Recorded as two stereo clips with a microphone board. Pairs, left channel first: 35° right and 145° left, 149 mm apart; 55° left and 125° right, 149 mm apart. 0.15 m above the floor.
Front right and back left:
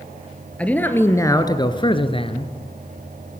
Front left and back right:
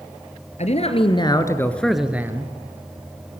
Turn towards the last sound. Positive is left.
turn(degrees=-65)